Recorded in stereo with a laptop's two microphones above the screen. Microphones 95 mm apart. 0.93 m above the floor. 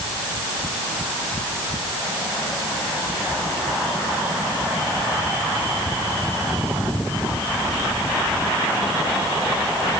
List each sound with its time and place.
Only background noise.